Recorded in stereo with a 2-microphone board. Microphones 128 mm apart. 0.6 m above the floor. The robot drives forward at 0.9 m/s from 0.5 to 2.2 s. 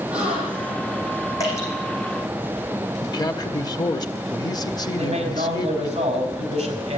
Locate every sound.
0.1 s a gasp: 15° right (ahead or behind), 8.5 m; by 0.8 s 10° right (ahead or behind), 8.5 m
1.4 s dripping: 25° left (ahead or behind), 6.5 m
3.0 s a man speaking: 35° left (ahead or behind), 0.9 m
4.9 s a man speaking: 50° right (ahead or behind), 4 m